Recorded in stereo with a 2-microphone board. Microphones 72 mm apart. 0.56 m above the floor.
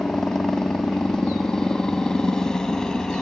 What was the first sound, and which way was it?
A helicopter, 10° left (ahead or behind).